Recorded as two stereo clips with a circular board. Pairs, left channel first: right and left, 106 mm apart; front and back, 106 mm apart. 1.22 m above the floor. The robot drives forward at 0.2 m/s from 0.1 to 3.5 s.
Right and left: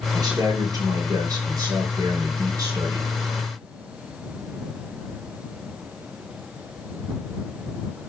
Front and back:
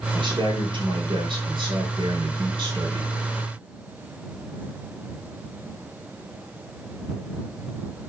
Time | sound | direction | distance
0.1 | a man speaking | 140° left | 4.5 m